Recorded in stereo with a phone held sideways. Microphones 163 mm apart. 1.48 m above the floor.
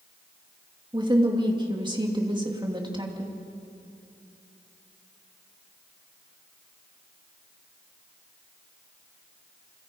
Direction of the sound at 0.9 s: 30° right (ahead or behind).